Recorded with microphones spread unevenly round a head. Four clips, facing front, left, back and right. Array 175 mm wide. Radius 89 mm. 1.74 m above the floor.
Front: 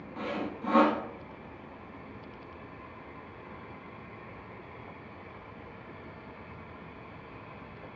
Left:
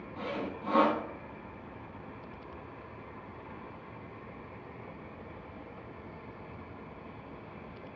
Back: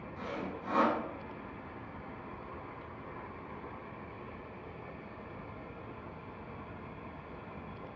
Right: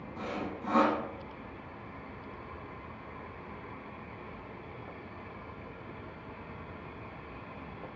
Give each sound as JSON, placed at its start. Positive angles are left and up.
{"t": 0.2, "sound": "sawing", "azimuth_deg": -5, "distance_m": 0.5}